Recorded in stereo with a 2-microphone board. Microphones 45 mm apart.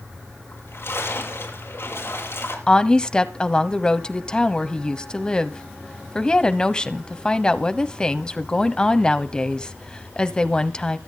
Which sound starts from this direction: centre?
A woman speaking, at 2.7 s.